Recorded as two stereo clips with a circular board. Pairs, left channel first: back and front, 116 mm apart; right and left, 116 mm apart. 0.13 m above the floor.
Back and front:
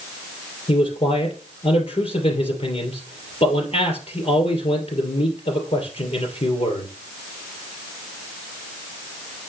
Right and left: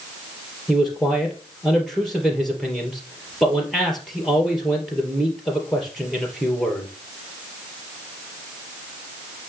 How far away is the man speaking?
About 2.5 m.